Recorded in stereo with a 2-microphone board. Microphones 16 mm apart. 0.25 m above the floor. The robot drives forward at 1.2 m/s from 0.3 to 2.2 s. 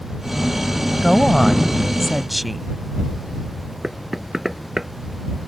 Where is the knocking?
10° right (ahead or behind).